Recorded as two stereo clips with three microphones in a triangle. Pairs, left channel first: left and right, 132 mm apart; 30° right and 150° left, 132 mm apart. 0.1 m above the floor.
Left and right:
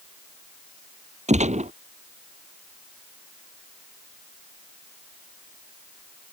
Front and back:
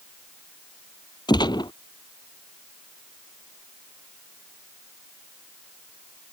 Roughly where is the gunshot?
Right.